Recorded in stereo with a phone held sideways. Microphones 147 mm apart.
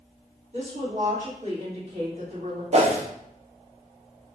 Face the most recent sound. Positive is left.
turn(degrees=-45)  # may be behind; listen again after turning